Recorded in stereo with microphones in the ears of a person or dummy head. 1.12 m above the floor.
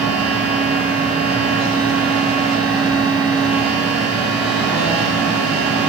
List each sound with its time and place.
0.0 s a fan: centre (ahead or behind), 1.0 m